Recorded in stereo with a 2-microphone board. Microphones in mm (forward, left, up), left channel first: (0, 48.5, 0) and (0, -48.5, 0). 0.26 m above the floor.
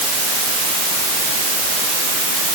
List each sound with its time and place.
Only background noise.